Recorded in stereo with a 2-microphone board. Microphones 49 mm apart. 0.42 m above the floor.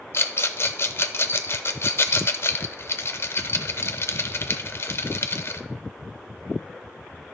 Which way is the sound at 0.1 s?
55° left (ahead or behind).